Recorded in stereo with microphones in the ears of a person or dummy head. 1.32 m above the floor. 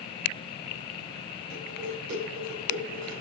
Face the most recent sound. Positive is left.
turn(degrees=-75)  # may be behind; listen again after turning